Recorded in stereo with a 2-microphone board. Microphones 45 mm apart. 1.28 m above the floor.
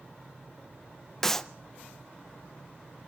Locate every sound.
1.2 s a clap: 10° left (ahead or behind), 0.6 m